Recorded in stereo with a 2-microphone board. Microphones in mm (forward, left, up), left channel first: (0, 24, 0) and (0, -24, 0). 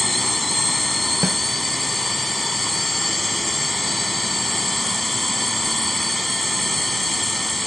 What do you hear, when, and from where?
0.0 s a drone: centre (ahead or behind)
1.2 s a snare drum: 60° right (ahead or behind)